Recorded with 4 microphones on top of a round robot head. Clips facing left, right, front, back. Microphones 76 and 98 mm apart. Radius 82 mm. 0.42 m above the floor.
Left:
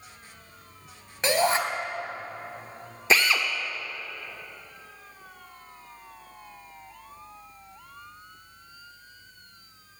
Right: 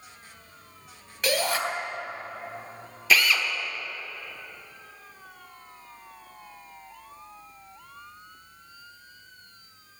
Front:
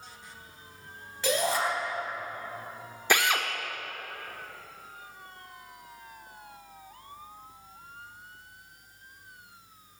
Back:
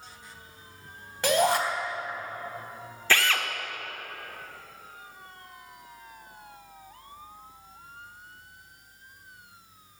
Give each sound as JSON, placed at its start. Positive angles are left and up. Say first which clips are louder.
{"t": 1.2, "sound": "a shout", "louder": "left 3 dB, back 5 dB", "azimuth_deg": 145, "distance_m": 3.5}
{"t": 3.1, "sound": "a drill", "louder": "even, even", "azimuth_deg": 55, "distance_m": 1.6}